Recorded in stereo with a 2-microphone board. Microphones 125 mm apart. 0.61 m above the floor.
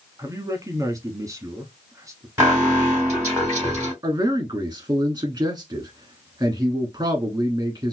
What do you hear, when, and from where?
0.2 s a man speaking: 25° right (ahead or behind), 1.1 m
2.4 s an alarm: 25° right (ahead or behind), 3 m
4.0 s a man speaking: 25° right (ahead or behind), 1.2 m